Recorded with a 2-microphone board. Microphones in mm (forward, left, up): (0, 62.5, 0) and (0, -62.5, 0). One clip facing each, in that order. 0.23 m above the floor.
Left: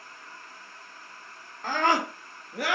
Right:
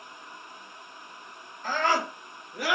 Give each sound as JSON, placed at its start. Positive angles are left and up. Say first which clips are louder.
{"t": 1.6, "sound": "a scream", "louder": "left 1 dB", "side_deg": 60, "distance_m": 3.0}